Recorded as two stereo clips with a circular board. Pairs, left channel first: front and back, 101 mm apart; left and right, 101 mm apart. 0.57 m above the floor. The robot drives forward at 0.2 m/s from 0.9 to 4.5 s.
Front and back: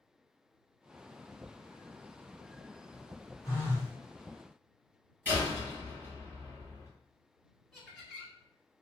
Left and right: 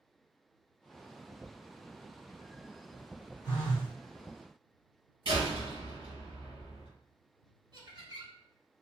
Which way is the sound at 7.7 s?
95° right.